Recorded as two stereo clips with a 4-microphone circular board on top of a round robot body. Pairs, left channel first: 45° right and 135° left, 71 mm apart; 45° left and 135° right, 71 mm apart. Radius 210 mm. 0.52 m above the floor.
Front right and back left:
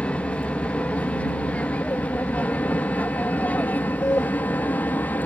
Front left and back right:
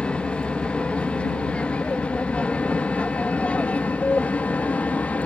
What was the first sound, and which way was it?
An aircraft, 5° right.